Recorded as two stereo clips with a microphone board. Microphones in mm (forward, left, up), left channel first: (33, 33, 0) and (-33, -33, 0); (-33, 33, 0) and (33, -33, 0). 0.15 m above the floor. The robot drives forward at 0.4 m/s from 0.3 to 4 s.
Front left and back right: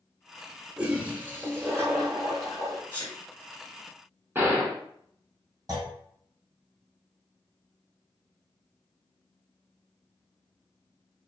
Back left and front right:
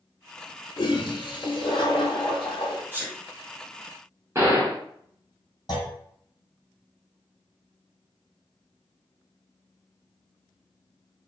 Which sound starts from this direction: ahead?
A sneeze, at 2.9 s.